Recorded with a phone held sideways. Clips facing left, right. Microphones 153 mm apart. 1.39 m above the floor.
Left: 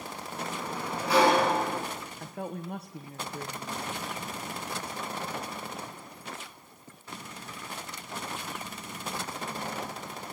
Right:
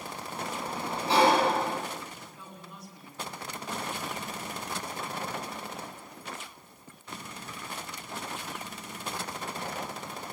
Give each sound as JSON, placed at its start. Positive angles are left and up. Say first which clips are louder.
{"t": 0.3, "sound": "a sliding door", "louder": "even", "side_deg": -25, "distance_m": 6.5}
{"t": 2.2, "sound": "a woman speaking", "louder": "left 10 dB", "side_deg": 65, "distance_m": 1.1}